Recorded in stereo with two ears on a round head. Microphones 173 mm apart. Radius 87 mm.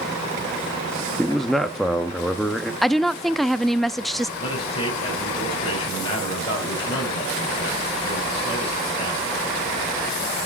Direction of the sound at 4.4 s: 30° left (ahead or behind).